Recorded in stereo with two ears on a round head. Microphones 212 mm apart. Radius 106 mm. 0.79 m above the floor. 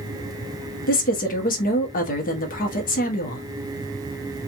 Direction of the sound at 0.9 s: 35° left (ahead or behind).